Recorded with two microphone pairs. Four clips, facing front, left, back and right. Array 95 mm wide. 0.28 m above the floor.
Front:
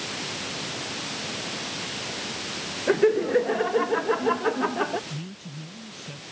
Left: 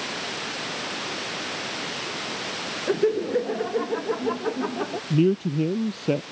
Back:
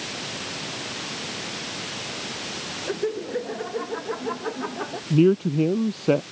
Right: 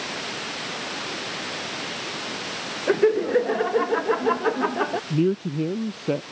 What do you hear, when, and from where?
2.9 s laughter: 65° right; by 5.0 s 70° right
5.1 s a man speaking: straight behind